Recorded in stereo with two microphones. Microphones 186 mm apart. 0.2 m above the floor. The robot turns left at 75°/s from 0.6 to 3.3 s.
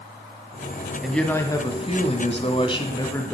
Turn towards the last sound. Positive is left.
turn(degrees=15)